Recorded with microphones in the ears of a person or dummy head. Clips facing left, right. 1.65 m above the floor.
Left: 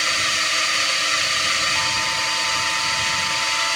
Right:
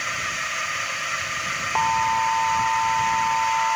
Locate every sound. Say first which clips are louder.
0.0 s a drone: left 4 dB; 50° left (ahead or behind)
1.8 s an alarm: right 7 dB; 80° right